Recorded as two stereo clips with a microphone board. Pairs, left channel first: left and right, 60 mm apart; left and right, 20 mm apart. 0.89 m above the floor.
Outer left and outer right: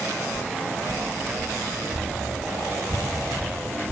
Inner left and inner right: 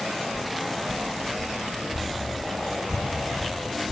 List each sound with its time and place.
0.3 s footsteps: 55° right (ahead or behind), 1.6 m; by 3.9 s 25° right (ahead or behind), 4 m